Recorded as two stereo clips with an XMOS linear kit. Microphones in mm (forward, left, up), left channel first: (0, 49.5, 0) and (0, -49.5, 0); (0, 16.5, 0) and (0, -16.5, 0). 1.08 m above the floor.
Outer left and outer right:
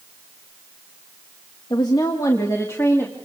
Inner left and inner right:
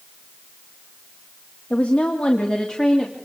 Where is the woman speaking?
45° left (ahead or behind), 1.7 m; by 3.2 s 25° left (ahead or behind), 2.5 m.